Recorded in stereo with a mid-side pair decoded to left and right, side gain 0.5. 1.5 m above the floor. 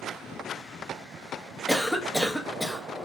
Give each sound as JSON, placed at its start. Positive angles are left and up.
{"t": 1.7, "sound": "a cough", "azimuth_deg": 5, "distance_m": 0.7}